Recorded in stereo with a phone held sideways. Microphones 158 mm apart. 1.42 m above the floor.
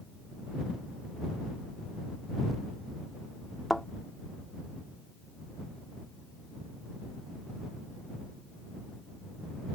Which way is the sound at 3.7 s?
Centre (ahead or behind).